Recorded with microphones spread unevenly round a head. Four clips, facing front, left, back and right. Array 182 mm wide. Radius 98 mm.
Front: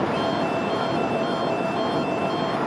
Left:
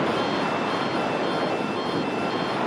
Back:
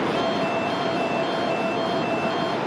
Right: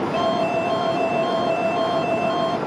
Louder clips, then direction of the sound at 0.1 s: Right 4 dB, even; 95° right.